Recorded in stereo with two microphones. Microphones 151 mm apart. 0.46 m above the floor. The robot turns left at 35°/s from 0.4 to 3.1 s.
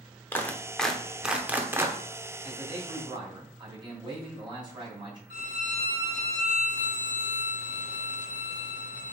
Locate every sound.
0.3 s a clap: 15° left (ahead or behind), 0.6 m; by 2.0 s 20° right (ahead or behind), 0.6 m
2.4 s a man speaking: 10° right (ahead or behind), 2.5 m; by 5.2 s 30° right (ahead or behind), 2.5 m
5.3 s a violin: 60° left (ahead or behind), 1.8 m